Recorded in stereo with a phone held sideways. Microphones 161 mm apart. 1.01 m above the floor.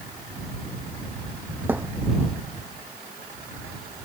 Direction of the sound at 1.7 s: 10° right (ahead or behind).